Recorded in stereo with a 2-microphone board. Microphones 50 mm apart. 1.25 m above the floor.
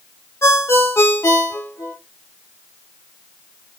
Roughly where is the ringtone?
Left.